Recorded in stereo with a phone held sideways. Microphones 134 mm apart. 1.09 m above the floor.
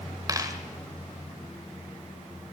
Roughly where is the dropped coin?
Right.